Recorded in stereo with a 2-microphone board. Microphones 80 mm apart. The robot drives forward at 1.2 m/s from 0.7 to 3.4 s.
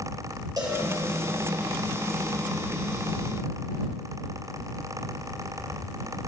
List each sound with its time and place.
0.6 s a cowbell: 50° right (ahead or behind), 3 m